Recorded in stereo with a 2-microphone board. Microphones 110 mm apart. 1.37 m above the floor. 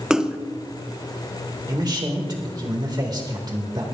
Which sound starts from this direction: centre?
A splash, at 0.1 s.